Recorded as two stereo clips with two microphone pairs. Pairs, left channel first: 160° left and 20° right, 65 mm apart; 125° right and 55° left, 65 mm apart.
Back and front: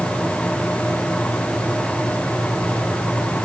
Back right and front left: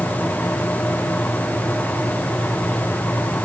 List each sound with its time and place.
Only background noise.